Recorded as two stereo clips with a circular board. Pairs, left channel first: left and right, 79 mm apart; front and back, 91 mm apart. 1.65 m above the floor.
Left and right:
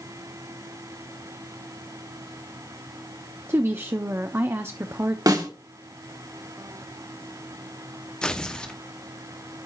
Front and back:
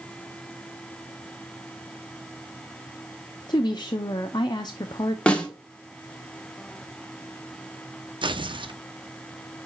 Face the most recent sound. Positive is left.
turn(degrees=170)